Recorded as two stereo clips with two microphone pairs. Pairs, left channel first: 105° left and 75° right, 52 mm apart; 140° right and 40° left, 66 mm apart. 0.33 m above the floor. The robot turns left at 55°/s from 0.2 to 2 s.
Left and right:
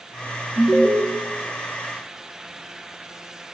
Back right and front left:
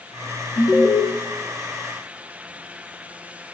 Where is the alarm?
125° right, 0.5 m; by 1.0 s 150° right, 0.5 m.